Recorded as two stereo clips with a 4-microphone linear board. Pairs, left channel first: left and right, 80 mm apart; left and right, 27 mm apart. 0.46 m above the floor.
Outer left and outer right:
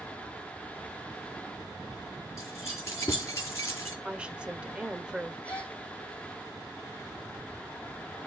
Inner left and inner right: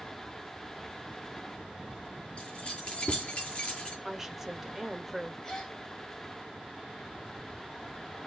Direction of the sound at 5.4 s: 20° left (ahead or behind).